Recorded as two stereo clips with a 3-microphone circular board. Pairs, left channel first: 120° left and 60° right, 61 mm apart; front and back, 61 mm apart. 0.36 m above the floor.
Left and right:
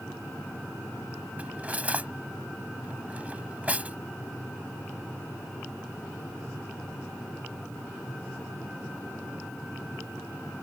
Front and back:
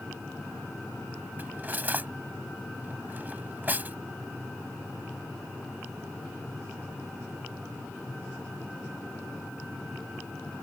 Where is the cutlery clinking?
120° right.